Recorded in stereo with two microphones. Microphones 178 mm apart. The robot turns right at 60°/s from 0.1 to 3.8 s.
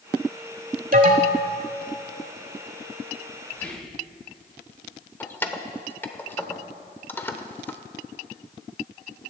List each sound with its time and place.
0.9 s an alarm: 70° right, 1.2 m; by 1.5 s 40° right, 1.2 m
3.5 s whispering: 15° left (ahead or behind), 1.6 m; by 4.0 s centre (ahead or behind), 1.6 m
5.2 s keys jangling: 10° left (ahead or behind), 0.7 m